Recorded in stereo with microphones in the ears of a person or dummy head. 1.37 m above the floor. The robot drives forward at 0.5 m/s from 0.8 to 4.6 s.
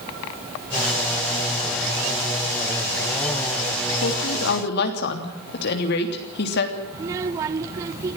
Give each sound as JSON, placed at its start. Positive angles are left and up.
{"t": 4.0, "sound": "a woman speaking", "side_deg": 70, "distance_m": 3.0}
{"t": 6.9, "sound": "a child speaking", "side_deg": -20, "distance_m": 0.5}